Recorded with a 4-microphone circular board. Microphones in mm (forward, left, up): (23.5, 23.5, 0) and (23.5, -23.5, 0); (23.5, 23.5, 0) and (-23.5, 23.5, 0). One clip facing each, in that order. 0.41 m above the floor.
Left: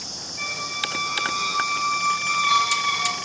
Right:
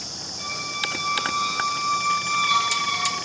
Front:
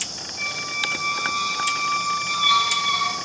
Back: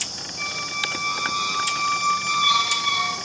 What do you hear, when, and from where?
0.4 s a squeak: 85° left, 4.5 m